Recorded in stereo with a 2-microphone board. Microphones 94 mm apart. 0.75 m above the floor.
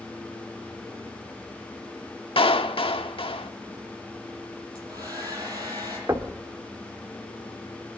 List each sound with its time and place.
2.4 s a clap: 75° left (ahead or behind), 1.1 m
4.8 s a hair dryer: 40° right (ahead or behind), 8.5 m
6.1 s knocking: 35° right (ahead or behind), 1.5 m